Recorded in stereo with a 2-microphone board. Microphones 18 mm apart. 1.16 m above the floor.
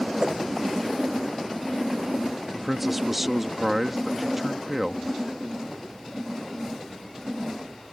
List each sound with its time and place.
0.2 s a whoosh: 50° right (ahead or behind)
2.5 s a man speaking: 10° right (ahead or behind)